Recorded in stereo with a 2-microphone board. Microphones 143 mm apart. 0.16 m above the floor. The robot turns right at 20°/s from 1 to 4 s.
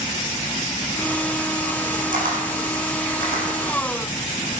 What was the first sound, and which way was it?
A camera shutter, 75° right (ahead or behind).